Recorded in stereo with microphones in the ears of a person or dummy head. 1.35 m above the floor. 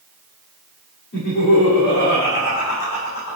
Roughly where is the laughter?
Left.